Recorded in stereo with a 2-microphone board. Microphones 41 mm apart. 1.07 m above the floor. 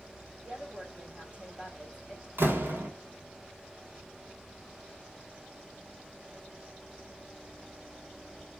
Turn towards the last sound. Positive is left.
turn(degrees=-70)  # may be behind; listen again after turning